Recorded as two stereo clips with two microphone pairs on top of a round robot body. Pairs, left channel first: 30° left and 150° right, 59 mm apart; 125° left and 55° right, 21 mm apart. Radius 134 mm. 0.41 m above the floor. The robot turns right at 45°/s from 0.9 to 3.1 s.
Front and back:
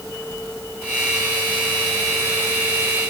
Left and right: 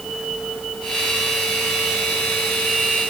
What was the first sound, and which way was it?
Only background noise.